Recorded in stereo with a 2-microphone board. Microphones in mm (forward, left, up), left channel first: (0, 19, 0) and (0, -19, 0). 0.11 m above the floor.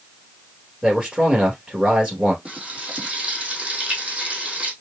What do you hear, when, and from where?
0.8 s a man speaking: 15° right (ahead or behind), 2.5 m
2.5 s frying: 25° right (ahead or behind), 2.5 m